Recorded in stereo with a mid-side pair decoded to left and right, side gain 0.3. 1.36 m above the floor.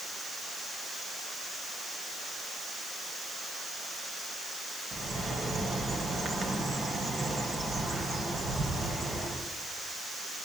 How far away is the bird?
About 7.5 m.